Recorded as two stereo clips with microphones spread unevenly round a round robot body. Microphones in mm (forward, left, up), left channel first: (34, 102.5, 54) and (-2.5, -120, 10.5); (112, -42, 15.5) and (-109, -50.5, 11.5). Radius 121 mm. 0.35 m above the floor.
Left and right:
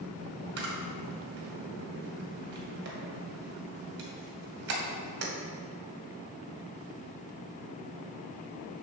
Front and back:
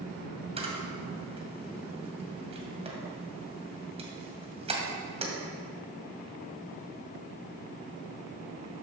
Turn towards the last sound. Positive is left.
turn(degrees=-120)